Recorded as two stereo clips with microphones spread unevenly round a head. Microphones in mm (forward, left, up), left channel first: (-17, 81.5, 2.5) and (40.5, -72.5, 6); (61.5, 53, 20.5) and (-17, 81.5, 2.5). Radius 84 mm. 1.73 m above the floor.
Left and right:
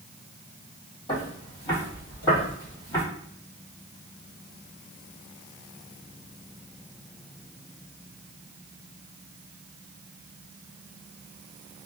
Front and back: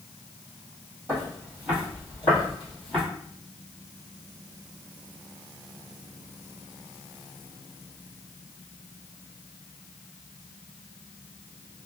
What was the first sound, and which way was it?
Footsteps, 105° left.